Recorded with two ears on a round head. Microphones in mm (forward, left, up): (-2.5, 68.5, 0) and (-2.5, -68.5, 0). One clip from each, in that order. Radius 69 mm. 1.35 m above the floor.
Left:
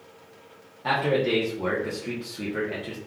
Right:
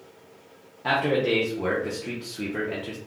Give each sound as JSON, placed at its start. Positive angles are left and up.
{"t": 0.8, "sound": "a man speaking", "side_deg": -5, "distance_m": 0.6}